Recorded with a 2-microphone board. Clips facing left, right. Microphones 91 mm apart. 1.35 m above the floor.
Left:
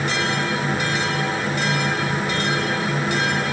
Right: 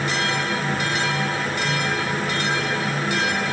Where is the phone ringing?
I don't hear a phone ringing.